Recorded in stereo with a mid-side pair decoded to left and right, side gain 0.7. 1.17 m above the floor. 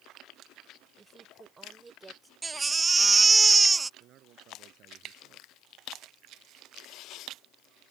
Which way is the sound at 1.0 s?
25° right.